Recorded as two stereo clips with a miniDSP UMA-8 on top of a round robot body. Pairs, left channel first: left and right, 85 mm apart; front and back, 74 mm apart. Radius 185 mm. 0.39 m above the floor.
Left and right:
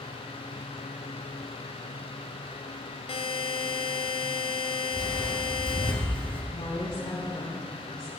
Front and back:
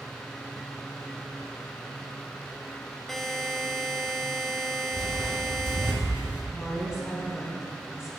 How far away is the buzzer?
About 0.5 m.